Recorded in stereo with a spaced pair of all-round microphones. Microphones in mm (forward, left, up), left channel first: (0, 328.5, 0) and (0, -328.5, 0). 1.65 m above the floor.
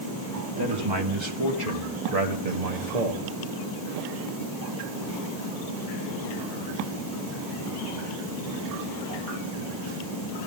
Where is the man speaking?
35° right (ahead or behind), 2.5 m; by 3.2 s 75° right (ahead or behind), 2.5 m.